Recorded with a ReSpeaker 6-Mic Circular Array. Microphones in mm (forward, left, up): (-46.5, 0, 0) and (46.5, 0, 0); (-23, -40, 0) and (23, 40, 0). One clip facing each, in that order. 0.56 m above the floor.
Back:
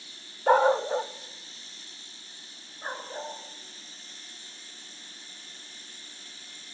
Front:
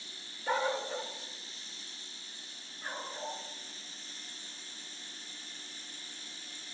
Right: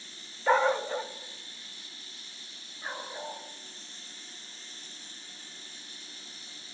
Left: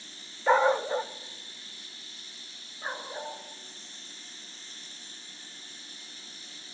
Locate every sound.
0.5 s a dog barking: 145° left, 0.5 m; by 3.4 s 125° left, 4 m